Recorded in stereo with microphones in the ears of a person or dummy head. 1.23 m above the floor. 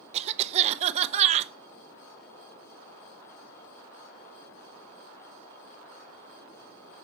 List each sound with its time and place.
0.1 s a cough: 40° right (ahead or behind), 0.7 m